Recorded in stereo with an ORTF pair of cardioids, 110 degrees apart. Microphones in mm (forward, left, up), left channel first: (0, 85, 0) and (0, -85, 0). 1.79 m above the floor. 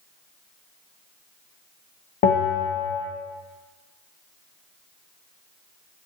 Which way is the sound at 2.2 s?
60° left.